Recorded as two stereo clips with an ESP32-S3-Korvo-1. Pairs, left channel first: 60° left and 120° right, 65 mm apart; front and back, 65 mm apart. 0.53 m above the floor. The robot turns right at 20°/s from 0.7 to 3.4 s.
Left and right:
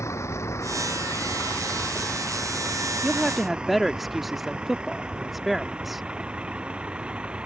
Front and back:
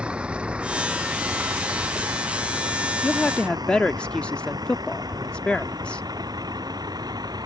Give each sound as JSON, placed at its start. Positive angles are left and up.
{"t": 0.0, "sound": "a vehicle", "azimuth_deg": 105}
{"t": 3.0, "sound": "a woman speaking", "azimuth_deg": -45}